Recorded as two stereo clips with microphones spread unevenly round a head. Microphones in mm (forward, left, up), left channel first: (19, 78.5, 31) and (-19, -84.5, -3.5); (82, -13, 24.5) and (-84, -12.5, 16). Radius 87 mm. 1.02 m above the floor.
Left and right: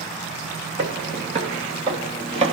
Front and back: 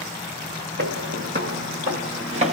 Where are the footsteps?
165° right, 1.9 m; by 2.5 s 155° right, 1.2 m.